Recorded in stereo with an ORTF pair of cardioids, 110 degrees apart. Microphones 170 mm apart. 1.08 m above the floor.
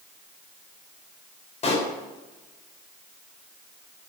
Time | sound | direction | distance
1.6 | a pop | 40° left | 3.5 m